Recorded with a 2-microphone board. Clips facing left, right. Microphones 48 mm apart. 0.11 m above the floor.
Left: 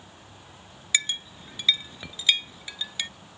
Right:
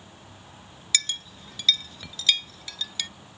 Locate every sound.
0.9 s a clink: 20° left (ahead or behind)